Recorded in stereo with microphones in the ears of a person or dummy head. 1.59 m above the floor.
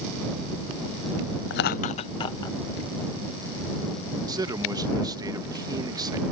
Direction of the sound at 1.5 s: 65° left (ahead or behind).